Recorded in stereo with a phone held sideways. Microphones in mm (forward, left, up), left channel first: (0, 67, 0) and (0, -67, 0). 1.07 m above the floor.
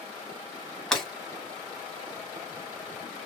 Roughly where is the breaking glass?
Centre.